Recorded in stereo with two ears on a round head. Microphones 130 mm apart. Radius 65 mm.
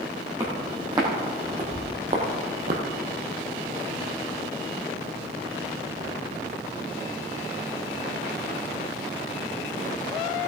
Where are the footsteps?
25° right (ahead or behind), 3.5 m; by 2.8 s 60° right (ahead or behind), 1.9 m.